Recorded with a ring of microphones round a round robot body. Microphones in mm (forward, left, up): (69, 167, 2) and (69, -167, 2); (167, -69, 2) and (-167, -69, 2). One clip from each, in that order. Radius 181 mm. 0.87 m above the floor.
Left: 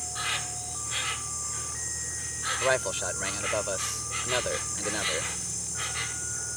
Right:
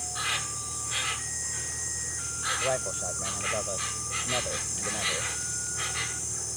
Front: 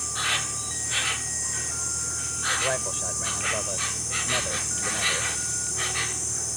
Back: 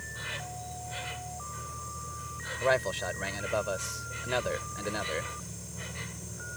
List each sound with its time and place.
0.0 s an insect: straight ahead
2.6 s a man speaking: 105° left